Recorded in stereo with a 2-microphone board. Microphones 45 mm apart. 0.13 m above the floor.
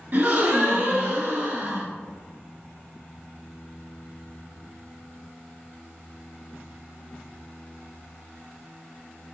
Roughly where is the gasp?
Right.